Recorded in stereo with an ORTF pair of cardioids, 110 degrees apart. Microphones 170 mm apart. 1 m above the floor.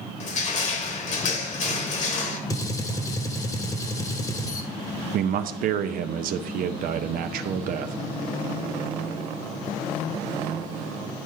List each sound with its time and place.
0.2 s crushing: 45° left, 1.3 m
2.5 s a gunshot: 20° left, 1.0 m
5.1 s a man speaking: 60° right, 0.5 m